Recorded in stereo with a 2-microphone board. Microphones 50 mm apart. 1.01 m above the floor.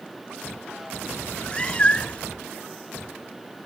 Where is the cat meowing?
20° left (ahead or behind); by 2.3 s 25° left (ahead or behind).